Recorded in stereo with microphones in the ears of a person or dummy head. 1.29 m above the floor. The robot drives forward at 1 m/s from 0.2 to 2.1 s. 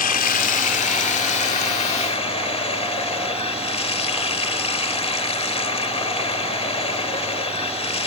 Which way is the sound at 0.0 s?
40° left (ahead or behind).